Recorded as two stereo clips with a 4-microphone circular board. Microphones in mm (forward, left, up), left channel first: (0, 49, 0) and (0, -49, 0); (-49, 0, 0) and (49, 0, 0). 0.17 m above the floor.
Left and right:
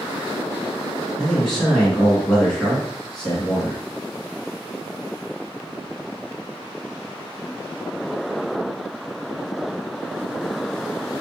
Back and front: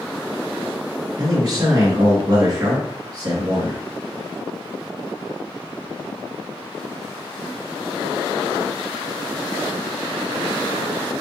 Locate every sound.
1.2 s a man speaking: 10° left, 2.0 m